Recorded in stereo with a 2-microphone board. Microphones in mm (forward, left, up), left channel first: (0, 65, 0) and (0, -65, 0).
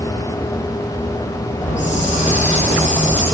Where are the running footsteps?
I don't hear running footsteps.